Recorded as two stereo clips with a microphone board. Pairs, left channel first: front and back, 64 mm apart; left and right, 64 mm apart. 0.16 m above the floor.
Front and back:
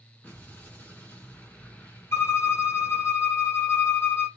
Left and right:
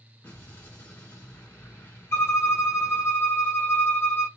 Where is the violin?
40° left, 1.0 m.